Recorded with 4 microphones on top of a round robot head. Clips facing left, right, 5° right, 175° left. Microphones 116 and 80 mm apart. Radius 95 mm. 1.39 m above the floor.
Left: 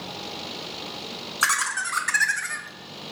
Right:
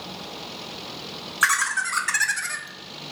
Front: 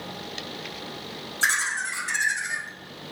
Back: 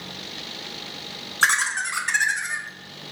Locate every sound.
1.4 s laughter: 150° left, 0.7 m; by 3.1 s 110° right, 0.7 m